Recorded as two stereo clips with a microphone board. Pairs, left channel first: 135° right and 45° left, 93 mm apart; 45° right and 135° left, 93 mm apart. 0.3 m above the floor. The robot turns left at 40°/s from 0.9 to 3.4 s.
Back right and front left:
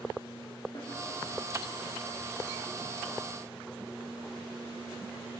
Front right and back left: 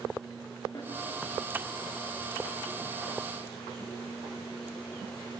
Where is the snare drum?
95° right, 9 m.